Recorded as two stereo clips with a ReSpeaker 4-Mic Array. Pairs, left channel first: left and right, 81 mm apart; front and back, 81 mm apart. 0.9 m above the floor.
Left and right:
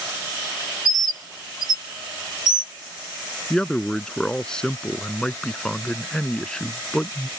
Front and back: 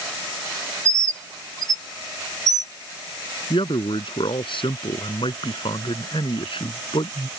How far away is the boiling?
I don't hear boiling.